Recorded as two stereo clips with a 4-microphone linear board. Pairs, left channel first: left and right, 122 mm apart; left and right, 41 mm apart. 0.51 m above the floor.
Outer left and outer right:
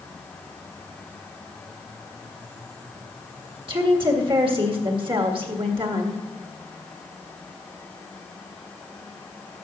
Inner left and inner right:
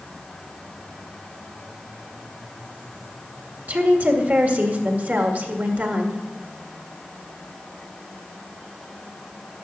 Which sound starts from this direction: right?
A woman speaking, at 3.7 s.